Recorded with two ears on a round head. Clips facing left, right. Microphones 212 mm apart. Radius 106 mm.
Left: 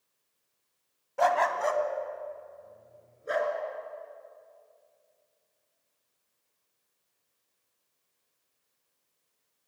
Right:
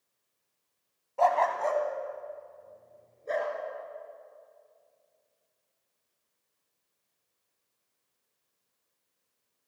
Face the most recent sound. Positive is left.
turn(degrees=15)  # may be behind; listen again after turning